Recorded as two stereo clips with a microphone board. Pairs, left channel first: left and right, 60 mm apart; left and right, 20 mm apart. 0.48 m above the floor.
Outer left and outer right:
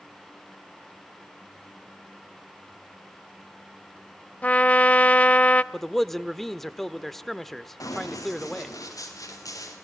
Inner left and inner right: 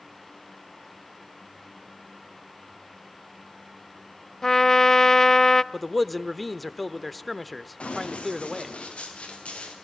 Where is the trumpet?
25° left (ahead or behind), 0.5 m.